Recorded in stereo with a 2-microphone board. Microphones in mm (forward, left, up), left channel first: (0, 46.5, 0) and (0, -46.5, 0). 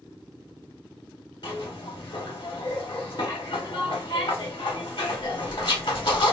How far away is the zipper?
About 1.3 m.